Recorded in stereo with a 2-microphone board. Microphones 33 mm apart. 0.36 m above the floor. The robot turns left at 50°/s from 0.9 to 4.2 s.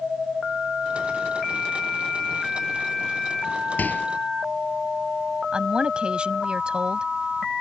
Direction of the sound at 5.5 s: 35° right (ahead or behind).